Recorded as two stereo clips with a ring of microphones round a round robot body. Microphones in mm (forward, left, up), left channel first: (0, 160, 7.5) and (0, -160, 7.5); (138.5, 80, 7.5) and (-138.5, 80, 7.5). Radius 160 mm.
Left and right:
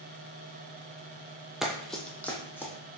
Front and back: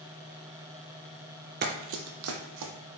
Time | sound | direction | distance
1.6 | running footsteps | straight behind | 0.5 m